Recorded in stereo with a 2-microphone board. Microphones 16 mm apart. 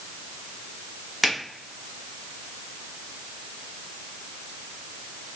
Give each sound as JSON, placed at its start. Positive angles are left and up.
{"t": 1.2, "sound": "a finger snap", "side_deg": -10, "distance_m": 1.2}